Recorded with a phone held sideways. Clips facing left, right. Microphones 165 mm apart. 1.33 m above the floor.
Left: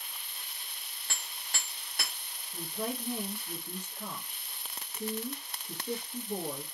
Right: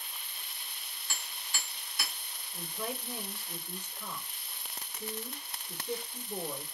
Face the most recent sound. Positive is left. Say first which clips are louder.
# left 3 dB
turn(degrees=50)  # may be behind; listen again after turning